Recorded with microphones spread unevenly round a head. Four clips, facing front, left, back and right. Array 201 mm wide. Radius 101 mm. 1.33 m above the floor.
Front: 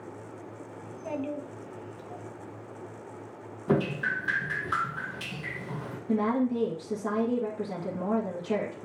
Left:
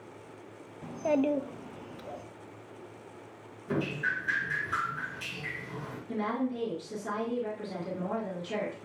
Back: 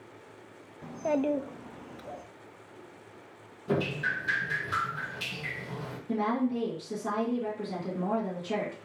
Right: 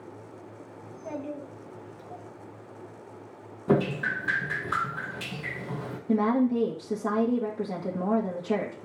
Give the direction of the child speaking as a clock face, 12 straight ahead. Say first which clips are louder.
Left 9 dB, back 6 dB; 8 o'clock.